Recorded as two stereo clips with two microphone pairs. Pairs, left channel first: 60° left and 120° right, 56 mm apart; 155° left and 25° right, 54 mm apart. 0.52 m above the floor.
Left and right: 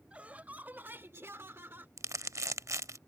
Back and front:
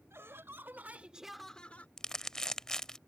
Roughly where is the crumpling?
Behind right.